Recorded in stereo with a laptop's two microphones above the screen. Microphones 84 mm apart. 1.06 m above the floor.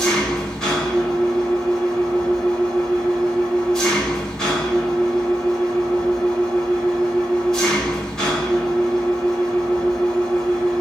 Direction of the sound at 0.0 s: 10° left (ahead or behind).